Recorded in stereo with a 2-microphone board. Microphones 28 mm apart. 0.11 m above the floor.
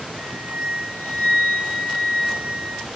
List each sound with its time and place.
0.2 s a flute: 80° right, 2.5 m